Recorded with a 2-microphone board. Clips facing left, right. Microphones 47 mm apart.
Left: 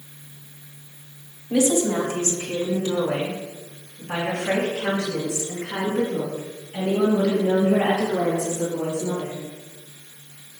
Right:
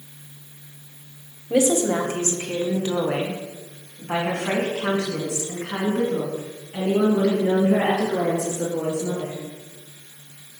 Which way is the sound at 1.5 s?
35° right (ahead or behind).